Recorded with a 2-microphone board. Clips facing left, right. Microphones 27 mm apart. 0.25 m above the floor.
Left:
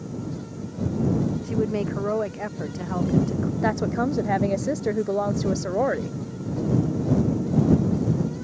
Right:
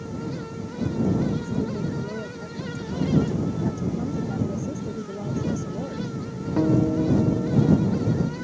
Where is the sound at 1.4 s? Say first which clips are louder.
Left 3 dB; 65° left (ahead or behind).